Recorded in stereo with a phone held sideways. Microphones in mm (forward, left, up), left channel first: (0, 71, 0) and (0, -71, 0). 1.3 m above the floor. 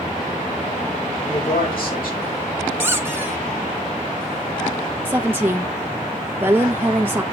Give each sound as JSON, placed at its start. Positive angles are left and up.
{"t": 1.2, "sound": "a man speaking", "side_deg": 85, "distance_m": 7.0}
{"t": 2.8, "sound": "a squeak", "side_deg": -15, "distance_m": 1.3}
{"t": 5.0, "sound": "a woman speaking", "side_deg": -15, "distance_m": 1.2}